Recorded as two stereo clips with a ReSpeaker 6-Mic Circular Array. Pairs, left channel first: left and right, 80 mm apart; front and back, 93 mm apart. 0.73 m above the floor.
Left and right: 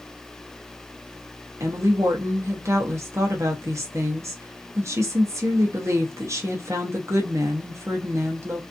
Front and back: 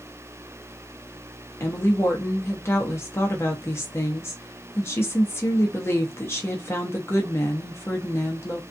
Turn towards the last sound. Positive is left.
turn(degrees=-50)